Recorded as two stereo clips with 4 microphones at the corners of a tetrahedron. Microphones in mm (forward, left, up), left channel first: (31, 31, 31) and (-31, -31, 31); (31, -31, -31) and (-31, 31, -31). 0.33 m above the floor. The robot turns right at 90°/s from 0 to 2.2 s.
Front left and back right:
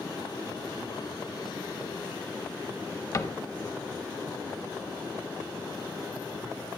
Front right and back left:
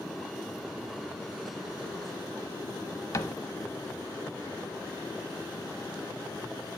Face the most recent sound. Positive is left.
turn(degrees=-5)